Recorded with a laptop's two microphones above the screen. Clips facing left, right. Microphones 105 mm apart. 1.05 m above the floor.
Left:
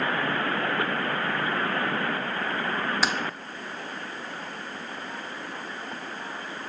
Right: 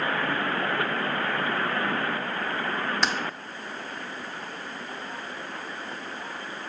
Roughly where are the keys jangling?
Centre.